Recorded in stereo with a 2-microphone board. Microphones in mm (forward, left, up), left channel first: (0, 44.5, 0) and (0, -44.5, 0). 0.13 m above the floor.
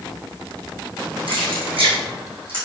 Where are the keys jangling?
75° right (ahead or behind), 5 m; by 2.6 s 80° right, 6 m.